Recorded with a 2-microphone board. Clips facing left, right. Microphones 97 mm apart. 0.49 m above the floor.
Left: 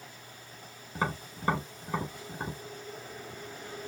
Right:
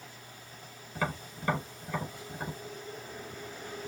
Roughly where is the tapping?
Left.